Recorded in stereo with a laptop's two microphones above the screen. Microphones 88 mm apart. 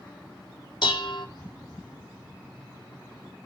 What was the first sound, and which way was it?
Dishes clattering, 70° left (ahead or behind).